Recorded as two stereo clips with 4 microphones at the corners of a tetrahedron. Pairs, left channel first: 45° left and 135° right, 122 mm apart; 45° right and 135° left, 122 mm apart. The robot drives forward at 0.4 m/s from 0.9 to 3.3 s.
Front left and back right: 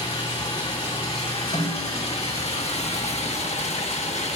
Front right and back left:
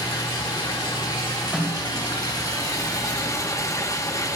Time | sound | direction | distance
0.0 | running water | 10° left | 2.0 m
1.5 | a snare drum | 45° left | 3 m